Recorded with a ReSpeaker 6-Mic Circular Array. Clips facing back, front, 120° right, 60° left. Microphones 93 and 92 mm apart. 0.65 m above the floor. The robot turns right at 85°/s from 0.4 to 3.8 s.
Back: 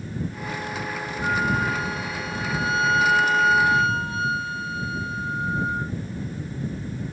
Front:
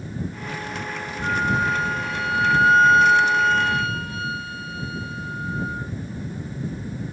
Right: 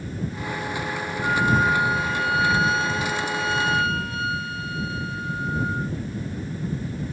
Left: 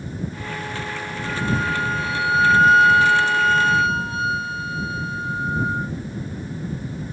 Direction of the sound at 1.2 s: 100° right.